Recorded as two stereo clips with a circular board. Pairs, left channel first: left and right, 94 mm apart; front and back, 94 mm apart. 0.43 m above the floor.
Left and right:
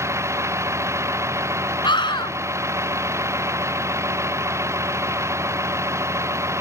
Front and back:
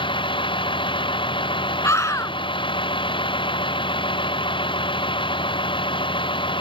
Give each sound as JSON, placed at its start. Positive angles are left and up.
{"t": 0.0, "sound": "a vehicle", "azimuth_deg": -30}
{"t": 1.8, "sound": "a scream", "azimuth_deg": 60}